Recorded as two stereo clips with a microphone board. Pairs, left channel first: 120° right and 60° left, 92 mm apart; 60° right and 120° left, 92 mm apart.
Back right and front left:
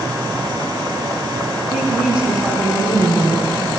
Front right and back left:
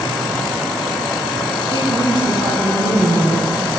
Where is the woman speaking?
135° left, 2.5 m; by 3.5 s 155° left, 4 m.